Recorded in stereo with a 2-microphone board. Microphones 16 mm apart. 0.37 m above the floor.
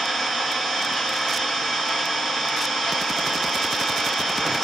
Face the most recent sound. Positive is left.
turn(degrees=55)  # may be behind; listen again after turning